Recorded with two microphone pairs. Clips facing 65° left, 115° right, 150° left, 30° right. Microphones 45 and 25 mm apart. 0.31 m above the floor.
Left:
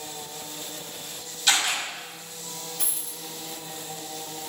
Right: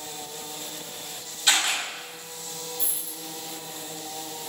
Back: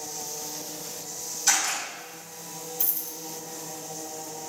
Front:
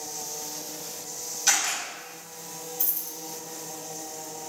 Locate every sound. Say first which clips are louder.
1.5 s a camera shutter: even, even; 70° right, 1.8 m
2.8 s a dropped coin: even, even; 70° left, 0.8 m